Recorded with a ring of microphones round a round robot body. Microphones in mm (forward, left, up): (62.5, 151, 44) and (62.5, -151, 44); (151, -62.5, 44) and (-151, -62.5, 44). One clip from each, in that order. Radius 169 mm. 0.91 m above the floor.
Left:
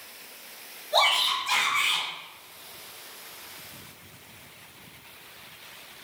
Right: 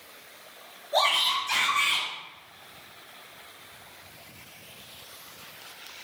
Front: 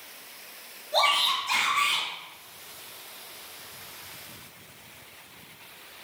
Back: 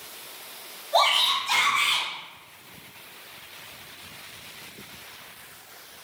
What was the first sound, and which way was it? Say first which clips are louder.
A shout: left 1 dB, back 2 dB; 100° left.